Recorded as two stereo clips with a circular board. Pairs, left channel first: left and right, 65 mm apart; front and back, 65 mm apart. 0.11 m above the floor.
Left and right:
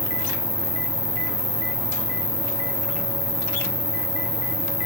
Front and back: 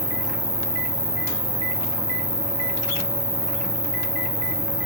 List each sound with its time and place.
0.0 s an insect: 170° right, 1.2 m